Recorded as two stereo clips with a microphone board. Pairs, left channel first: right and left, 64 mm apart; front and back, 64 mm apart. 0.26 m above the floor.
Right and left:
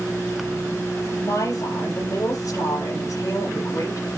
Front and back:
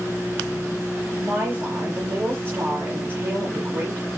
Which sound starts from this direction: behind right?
A woman speaking, at 1.2 s.